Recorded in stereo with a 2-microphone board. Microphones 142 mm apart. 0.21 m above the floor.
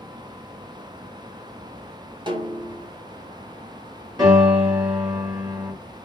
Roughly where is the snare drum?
Right.